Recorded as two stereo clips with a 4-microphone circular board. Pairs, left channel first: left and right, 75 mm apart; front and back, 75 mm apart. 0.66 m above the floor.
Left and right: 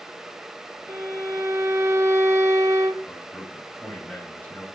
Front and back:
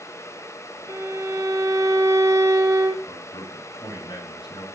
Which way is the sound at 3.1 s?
20° left.